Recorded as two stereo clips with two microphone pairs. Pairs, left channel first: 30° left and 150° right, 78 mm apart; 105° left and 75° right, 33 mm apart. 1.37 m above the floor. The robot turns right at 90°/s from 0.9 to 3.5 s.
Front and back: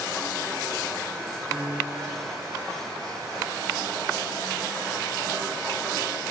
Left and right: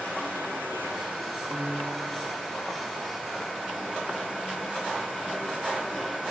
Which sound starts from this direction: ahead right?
A piano, at 1.5 s.